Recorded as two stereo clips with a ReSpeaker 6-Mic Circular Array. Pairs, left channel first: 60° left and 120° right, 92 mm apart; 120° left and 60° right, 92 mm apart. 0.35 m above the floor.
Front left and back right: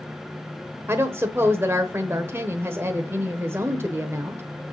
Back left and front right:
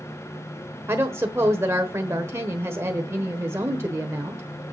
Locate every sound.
0.9 s a woman speaking: 85° right, 1.0 m